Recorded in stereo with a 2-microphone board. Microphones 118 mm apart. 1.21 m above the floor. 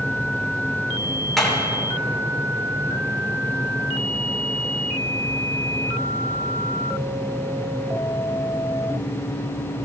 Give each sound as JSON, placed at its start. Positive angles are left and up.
{"t": 1.4, "sound": "hammering", "side_deg": 0, "distance_m": 3.5}